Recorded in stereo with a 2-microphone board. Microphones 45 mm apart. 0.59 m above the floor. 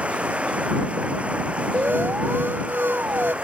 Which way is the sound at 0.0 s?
30° right (ahead or behind).